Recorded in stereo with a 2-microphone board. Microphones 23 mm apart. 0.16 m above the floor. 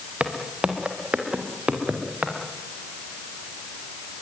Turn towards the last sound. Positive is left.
turn(degrees=-50)  # may be behind; listen again after turning